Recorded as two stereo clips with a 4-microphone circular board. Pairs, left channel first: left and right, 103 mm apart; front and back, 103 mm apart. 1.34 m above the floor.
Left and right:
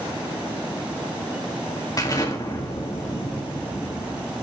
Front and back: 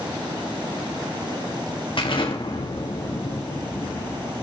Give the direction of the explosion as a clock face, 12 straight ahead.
11 o'clock.